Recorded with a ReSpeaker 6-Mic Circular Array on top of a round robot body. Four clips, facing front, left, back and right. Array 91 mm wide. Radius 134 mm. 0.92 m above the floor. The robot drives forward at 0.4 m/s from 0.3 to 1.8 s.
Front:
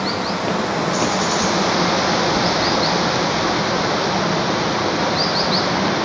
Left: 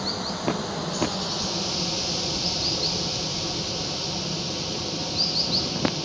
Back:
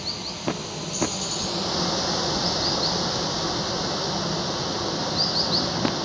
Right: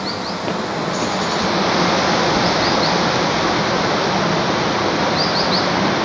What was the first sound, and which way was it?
Running water, 25° right.